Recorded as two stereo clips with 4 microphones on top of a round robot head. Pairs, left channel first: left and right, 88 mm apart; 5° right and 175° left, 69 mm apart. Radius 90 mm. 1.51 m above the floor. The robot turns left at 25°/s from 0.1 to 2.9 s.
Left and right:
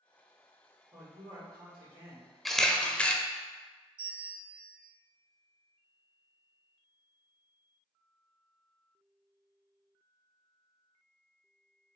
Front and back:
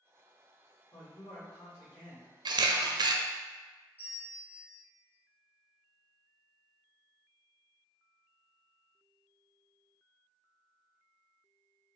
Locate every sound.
0.9 s a man speaking: 40° right, 2 m; by 2.4 s 75° right, 2 m
2.5 s a camera shutter: straight behind, 0.7 m; by 3.2 s 170° left, 0.7 m
4.0 s a bell: 115° right, 1.2 m